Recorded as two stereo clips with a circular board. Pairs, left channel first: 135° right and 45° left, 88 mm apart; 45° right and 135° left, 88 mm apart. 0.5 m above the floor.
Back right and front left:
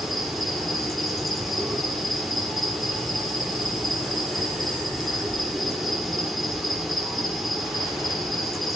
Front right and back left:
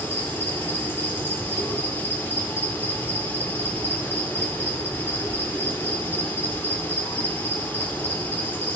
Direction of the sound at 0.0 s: 45° right.